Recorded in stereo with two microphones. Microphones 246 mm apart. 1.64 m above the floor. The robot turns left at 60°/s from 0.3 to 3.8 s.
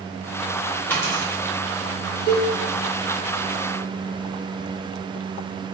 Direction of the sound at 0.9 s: 5° left (ahead or behind).